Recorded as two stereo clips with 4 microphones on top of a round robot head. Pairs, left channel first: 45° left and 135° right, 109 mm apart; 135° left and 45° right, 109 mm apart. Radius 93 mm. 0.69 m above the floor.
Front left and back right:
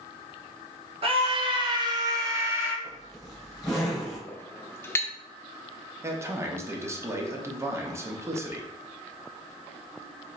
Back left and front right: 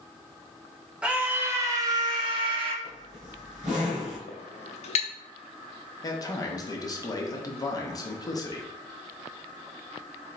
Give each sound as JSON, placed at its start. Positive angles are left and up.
{"t": 1.0, "sound": "a scream", "azimuth_deg": -125, "distance_m": 1.4}
{"t": 2.8, "sound": "a zipper", "azimuth_deg": -40, "distance_m": 2.0}
{"t": 4.3, "sound": "a clink", "azimuth_deg": 115, "distance_m": 0.7}
{"t": 6.0, "sound": "a man speaking", "azimuth_deg": 175, "distance_m": 1.0}